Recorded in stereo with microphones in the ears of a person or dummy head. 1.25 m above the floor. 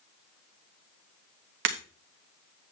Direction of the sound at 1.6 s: 55° right (ahead or behind).